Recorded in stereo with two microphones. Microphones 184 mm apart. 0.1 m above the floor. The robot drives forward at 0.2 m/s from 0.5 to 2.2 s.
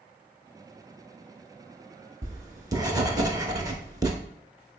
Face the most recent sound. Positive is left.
turn(degrees=-20)  # may be behind; listen again after turning